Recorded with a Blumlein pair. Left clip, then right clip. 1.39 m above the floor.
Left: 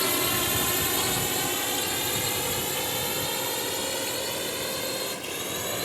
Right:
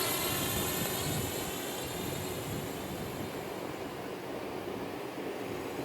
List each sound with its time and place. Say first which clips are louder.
0.0 s a drone: left 7 dB; 20° left; by 5.9 s 50° left